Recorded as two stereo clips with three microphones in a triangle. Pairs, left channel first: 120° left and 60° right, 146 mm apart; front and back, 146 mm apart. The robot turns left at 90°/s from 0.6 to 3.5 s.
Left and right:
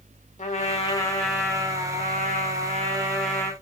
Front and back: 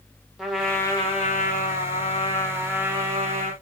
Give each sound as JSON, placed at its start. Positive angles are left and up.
{"t": 0.4, "sound": "a trumpet", "azimuth_deg": 90, "distance_m": 0.8}